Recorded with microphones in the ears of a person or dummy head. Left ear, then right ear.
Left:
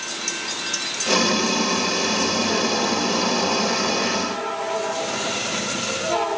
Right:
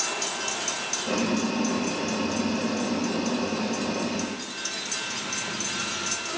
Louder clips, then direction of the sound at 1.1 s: Left 10 dB; 80° left.